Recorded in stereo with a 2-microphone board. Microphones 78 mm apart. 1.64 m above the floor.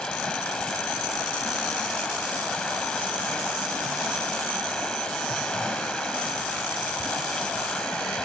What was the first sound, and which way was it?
Running water, 10° left (ahead or behind).